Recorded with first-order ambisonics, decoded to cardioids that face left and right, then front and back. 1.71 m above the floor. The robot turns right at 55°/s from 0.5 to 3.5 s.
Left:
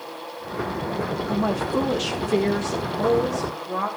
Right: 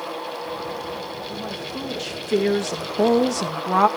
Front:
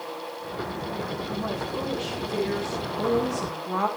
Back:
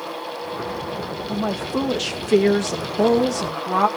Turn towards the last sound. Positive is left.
turn(degrees=-110)